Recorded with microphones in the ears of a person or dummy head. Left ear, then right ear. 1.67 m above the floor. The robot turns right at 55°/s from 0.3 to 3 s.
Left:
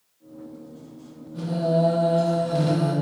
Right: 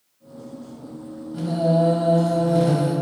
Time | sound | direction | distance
1.3 | singing | 30° right | 1.3 m